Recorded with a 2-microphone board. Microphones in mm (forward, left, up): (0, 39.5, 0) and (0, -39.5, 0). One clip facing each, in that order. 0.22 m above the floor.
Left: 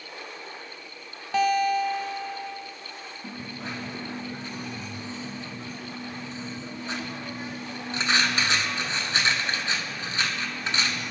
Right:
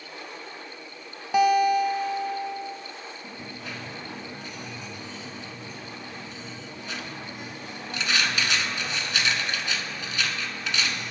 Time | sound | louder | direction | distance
1.3 | a guitar | right 3 dB | 15° right (ahead or behind) | 0.5 m
3.2 | a dropped coin | left 6 dB | 35° left (ahead or behind) | 1.3 m